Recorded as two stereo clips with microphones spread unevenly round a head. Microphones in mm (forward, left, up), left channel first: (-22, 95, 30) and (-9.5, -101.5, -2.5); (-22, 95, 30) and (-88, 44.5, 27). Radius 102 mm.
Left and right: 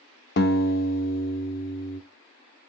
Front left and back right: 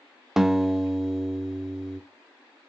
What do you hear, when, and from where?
0.4 s a guitar: 130° left, 1.2 m